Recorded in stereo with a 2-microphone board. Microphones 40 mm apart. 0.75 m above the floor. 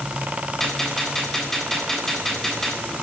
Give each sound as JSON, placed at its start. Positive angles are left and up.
{"t": 0.6, "sound": "a gunshot", "side_deg": 10, "distance_m": 7.5}